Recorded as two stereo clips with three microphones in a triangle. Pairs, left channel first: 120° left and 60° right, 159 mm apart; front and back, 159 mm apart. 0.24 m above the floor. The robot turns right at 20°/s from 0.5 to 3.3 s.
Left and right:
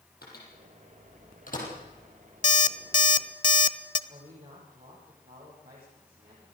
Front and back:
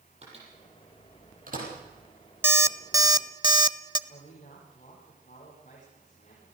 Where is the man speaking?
40° right, 8 m.